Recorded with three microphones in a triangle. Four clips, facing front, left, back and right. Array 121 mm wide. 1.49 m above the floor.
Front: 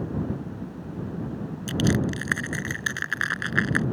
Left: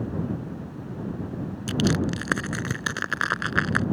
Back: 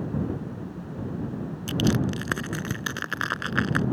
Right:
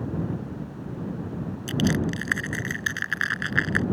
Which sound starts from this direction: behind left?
Crushing, at 1.7 s.